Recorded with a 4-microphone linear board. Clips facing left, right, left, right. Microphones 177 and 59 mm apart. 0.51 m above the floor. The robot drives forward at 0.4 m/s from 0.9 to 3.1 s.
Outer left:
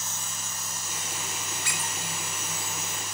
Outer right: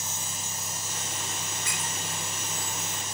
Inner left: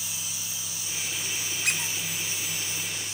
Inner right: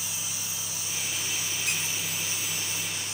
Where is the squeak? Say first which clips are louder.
Even, inner left 4 dB; 75° left (ahead or behind), 0.8 m; by 2.0 s 70° left (ahead or behind), 0.8 m.